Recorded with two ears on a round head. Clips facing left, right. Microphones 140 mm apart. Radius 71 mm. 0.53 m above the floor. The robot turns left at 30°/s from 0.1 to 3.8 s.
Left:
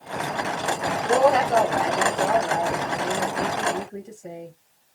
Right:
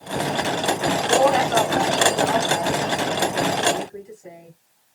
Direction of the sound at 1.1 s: 155° left.